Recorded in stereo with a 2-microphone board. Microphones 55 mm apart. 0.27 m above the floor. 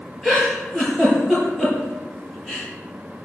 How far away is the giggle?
About 7.5 m.